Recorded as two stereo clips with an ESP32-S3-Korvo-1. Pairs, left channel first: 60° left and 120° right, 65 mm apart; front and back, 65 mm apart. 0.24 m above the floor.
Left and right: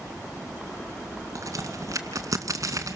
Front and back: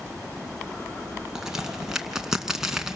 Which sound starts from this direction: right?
A crack, at 1.4 s.